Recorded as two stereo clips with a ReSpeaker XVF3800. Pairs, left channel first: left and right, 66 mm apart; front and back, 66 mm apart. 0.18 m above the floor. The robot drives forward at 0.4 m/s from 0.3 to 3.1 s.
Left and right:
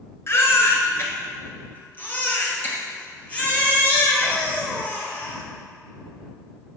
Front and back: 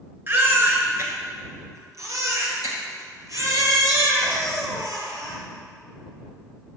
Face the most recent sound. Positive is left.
turn(degrees=155)